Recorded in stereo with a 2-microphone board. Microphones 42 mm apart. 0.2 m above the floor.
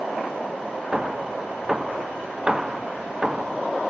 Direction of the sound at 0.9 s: 15° right (ahead or behind).